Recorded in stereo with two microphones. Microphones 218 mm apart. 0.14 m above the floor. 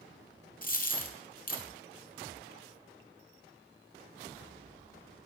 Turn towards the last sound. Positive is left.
turn(degrees=40)  # may be behind; listen again after turning